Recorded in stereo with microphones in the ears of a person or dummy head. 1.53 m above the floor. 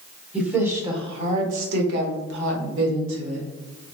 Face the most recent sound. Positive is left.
turn(degrees=-85)